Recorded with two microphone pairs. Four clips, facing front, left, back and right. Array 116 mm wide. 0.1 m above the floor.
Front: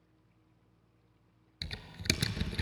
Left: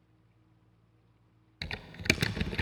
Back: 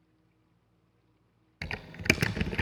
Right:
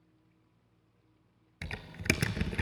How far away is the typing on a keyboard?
About 0.6 m.